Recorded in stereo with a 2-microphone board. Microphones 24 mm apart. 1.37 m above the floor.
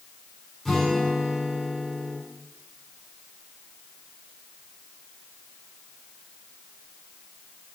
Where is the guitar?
15° left (ahead or behind), 4 m.